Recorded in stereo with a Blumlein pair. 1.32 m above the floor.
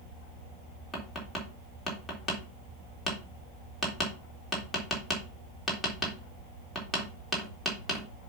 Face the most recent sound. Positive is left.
turn(degrees=10)